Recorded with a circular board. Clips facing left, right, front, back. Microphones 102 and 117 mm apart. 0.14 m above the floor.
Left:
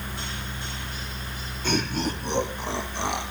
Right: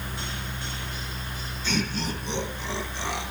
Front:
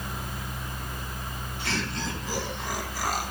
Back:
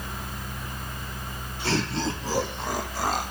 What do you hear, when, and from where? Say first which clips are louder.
1.6 s laughter: left 3 dB, back 6 dB; 125° left, 7.5 m; by 3.3 s 115° left, 7 m